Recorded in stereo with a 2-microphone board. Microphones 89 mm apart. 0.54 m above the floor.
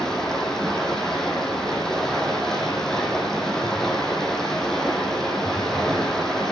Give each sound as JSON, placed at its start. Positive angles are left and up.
{"t": 0.0, "sound": "running water", "side_deg": 5, "distance_m": 2.5}